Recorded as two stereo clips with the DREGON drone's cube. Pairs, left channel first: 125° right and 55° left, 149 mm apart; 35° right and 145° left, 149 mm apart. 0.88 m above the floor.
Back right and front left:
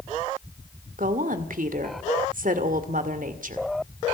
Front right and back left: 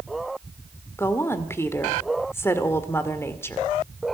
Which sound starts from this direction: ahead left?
A woman speaking, at 1.0 s.